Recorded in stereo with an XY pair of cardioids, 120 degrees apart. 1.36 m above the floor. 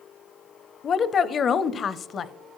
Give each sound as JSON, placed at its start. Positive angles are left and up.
{"t": 0.8, "sound": "a woman speaking", "azimuth_deg": 40, "distance_m": 0.7}